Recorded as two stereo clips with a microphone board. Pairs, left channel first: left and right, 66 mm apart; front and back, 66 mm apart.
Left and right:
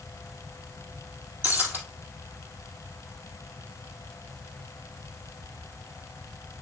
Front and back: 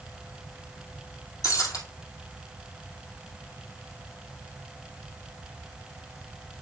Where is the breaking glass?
30° right, 2 m.